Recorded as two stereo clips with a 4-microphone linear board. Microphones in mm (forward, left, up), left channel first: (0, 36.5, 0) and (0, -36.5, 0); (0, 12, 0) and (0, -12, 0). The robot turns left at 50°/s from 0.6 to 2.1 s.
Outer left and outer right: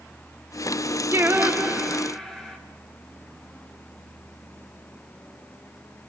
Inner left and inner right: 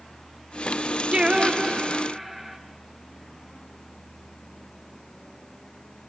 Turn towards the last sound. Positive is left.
turn(degrees=175)